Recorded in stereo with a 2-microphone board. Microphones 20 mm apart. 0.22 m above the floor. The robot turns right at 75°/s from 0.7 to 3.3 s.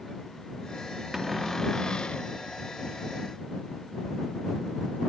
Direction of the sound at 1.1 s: 15° right.